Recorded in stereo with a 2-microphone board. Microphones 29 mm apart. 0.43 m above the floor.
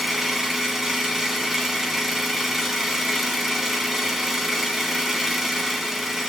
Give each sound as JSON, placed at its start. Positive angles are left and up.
{"t": 0.0, "sound": "an engine running", "side_deg": -10, "distance_m": 2.5}